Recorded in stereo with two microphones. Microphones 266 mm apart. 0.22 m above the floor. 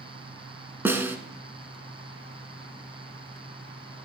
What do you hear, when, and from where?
0.8 s a snare drum: 10° right (ahead or behind), 0.8 m